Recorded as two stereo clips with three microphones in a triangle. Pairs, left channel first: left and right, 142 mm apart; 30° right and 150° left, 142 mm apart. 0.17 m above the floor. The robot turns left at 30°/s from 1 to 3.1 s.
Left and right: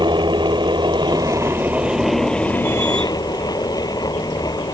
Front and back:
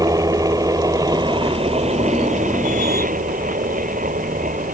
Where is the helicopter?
145° right; by 4.8 s 150° left.